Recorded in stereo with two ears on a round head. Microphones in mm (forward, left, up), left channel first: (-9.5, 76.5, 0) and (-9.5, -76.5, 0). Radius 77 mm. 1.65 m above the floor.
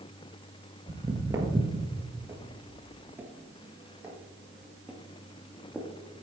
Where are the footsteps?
25° right (ahead or behind), 1.8 m; by 6.2 s centre (ahead or behind), 2.5 m.